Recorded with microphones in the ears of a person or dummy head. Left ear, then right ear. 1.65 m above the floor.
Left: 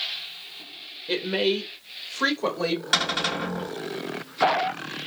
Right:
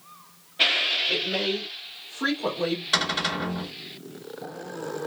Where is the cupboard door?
40° left (ahead or behind), 1.7 m.